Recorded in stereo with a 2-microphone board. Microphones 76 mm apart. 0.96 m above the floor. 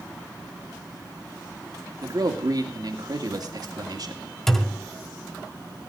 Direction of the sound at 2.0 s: 60° right (ahead or behind).